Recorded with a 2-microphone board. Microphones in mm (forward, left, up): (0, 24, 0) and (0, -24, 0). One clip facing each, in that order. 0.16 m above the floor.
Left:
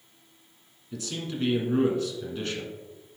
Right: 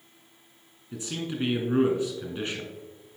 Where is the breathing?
No breathing in this recording.